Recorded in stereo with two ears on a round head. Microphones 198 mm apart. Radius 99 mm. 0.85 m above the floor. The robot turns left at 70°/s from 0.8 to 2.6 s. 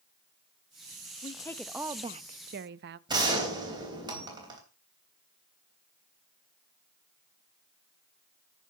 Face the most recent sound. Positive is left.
turn(degrees=-20)  # may be behind; listen again after turning